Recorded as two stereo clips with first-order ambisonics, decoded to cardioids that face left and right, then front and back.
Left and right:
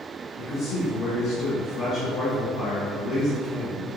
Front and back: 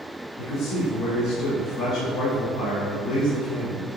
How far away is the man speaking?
About 1.7 m.